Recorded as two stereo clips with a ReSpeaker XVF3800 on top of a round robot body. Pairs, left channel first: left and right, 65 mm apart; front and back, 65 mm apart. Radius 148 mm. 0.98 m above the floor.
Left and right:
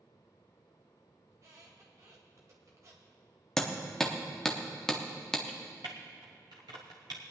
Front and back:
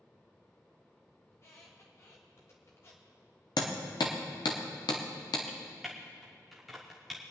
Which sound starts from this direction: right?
Typing on a keyboard, at 5.5 s.